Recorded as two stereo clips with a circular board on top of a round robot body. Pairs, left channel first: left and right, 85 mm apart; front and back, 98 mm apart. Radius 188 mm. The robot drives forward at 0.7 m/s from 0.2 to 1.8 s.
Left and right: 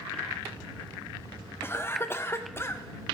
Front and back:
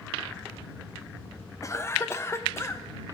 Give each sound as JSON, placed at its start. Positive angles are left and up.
{"t": 1.6, "sound": "a cough", "azimuth_deg": 40, "distance_m": 1.0}